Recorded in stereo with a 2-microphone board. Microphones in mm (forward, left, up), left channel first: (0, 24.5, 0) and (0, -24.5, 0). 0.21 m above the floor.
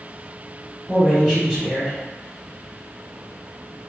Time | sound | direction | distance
0.9 | a man speaking | 15° right (ahead or behind) | 1.7 m